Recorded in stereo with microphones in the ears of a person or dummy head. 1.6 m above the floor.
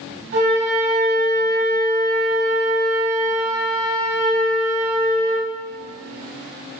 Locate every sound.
0.3 s a flute: 40° right (ahead or behind), 2.0 m